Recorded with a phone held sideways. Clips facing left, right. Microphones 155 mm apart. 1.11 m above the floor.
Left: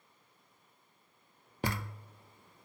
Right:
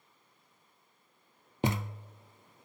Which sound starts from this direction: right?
A thud, at 1.6 s.